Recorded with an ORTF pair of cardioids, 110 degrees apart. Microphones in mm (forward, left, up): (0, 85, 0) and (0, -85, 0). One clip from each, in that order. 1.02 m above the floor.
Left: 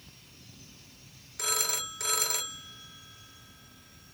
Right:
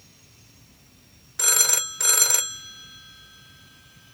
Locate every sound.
1.4 s a phone ringing: 45° right, 1.3 m